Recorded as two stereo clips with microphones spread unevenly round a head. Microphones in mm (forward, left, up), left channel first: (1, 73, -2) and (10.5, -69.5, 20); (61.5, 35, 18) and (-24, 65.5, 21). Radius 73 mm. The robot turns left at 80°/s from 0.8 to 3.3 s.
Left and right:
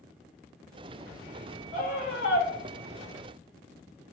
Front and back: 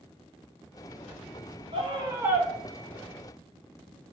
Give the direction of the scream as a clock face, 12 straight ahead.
7 o'clock.